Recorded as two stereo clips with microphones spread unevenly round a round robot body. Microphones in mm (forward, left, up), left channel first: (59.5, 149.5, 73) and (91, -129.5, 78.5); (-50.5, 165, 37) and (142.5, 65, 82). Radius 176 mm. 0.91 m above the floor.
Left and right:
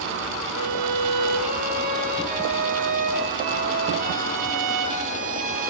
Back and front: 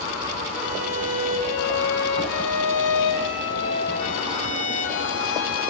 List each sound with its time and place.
0.5 s a violin: 150° right, 2.5 m